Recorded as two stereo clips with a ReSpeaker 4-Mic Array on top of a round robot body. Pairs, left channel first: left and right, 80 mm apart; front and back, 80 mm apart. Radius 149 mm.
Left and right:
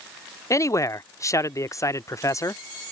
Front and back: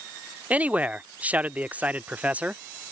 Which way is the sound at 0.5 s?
115° left.